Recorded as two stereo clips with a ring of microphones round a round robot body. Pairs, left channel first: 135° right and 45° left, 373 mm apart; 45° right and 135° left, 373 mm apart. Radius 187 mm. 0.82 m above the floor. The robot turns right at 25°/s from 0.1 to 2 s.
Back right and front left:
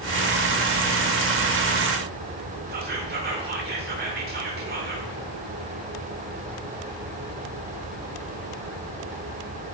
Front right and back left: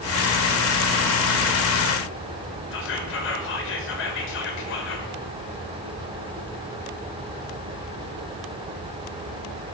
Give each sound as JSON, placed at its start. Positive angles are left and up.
{"t": 2.7, "sound": "whispering", "azimuth_deg": -5, "distance_m": 0.6}